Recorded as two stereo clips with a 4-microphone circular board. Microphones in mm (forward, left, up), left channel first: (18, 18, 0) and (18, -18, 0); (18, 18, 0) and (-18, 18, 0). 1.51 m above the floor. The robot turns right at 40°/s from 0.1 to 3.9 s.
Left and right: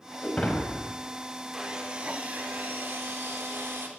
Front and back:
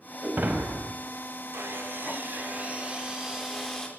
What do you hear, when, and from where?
0.2 s breaking glass: 135° left, 5.5 m; by 0.9 s 165° left, 5.5 m
1.5 s sawing: 170° right, 5.5 m; by 3.9 s 75° right, 5.5 m